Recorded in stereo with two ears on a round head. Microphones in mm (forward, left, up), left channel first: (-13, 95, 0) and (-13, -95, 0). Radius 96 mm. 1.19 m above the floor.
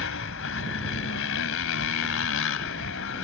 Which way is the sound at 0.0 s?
65° left (ahead or behind).